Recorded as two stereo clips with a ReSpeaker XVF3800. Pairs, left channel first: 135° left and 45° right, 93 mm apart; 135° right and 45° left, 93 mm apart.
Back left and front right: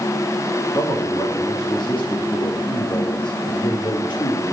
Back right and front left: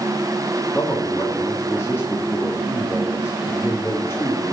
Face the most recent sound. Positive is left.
turn(degrees=160)